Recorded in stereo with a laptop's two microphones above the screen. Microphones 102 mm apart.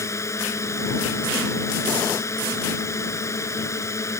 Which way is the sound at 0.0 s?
30° left (ahead or behind).